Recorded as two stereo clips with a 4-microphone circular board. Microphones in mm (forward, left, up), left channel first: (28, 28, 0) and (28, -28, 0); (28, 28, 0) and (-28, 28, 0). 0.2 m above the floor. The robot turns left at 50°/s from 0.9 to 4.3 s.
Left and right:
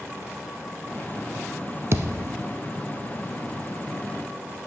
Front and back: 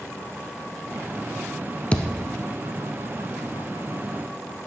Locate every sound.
1.9 s a thud: 65° right, 0.7 m; by 2.5 s 95° right, 0.7 m